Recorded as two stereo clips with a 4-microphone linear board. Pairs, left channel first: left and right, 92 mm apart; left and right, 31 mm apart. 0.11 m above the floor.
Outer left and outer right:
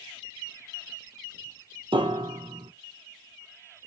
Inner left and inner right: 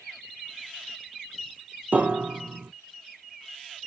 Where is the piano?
65° right (ahead or behind), 1.1 m.